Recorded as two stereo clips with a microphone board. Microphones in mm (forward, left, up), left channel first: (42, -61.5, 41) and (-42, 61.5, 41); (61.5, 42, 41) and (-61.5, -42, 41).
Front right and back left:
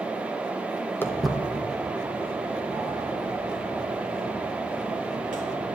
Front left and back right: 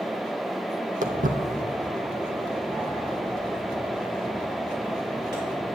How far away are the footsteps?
About 0.8 m.